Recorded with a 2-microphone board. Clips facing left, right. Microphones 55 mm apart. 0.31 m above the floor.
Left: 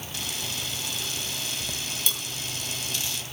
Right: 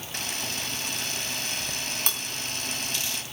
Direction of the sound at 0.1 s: 50° right (ahead or behind).